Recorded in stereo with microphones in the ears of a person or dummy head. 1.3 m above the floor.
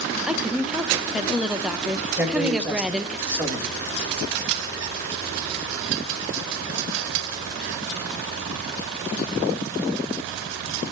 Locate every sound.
0.3 s a woman speaking: centre (ahead or behind), 0.7 m
2.2 s a man speaking: 5° right (ahead or behind), 2 m